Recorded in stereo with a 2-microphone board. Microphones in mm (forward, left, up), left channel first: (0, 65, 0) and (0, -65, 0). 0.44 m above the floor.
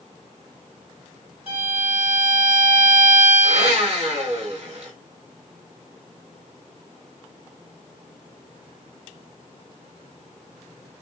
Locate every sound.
1.5 s a violin: 55° right (ahead or behind), 2.5 m
3.4 s a blender: 60° right (ahead or behind), 1.8 m